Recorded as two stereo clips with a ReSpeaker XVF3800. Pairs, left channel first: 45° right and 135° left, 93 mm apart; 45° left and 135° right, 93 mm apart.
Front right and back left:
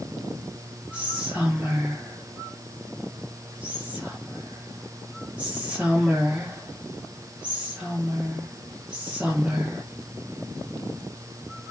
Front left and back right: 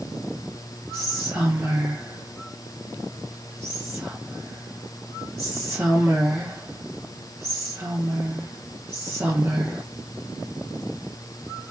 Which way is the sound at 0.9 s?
160° right.